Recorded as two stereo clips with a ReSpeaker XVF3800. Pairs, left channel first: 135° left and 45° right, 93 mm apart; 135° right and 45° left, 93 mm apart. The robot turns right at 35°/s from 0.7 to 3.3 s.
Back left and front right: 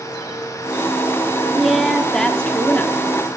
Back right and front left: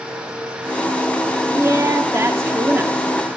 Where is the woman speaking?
40° left, 0.8 m; by 3.4 s 100° left, 0.8 m.